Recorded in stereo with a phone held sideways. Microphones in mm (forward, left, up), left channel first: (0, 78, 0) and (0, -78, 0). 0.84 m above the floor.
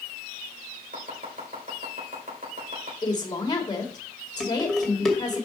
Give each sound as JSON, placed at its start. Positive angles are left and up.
{"t": 0.9, "sound": "chopping", "side_deg": -60, "distance_m": 3.0}
{"t": 3.0, "sound": "a woman speaking", "side_deg": 25, "distance_m": 2.0}
{"t": 4.4, "sound": "dishes clattering", "side_deg": 0, "distance_m": 2.0}